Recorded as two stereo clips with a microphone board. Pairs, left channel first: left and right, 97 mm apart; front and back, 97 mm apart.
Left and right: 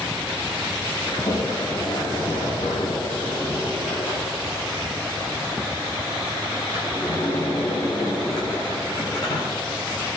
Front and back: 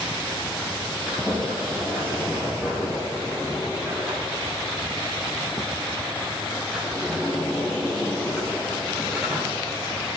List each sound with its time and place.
1.1 s a sliding door: 90° left, 9.5 m